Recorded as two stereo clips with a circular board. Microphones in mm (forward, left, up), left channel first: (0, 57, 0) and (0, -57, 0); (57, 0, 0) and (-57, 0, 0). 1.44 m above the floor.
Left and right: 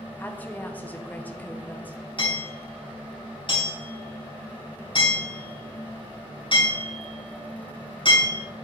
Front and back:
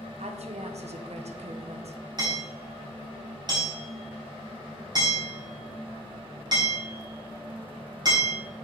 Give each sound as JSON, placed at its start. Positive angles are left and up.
{"t": 0.2, "sound": "a woman speaking", "azimuth_deg": 165, "distance_m": 1.1}
{"t": 2.2, "sound": "hammering", "azimuth_deg": 130, "distance_m": 4.0}